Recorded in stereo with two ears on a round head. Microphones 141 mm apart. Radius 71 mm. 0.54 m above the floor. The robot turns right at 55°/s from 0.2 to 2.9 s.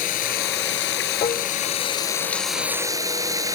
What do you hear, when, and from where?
0.0 s running water: 55° left; by 3.5 s 160° right
1.2 s dishes clattering: 30° left (ahead or behind); by 1.5 s 20° left (ahead or behind)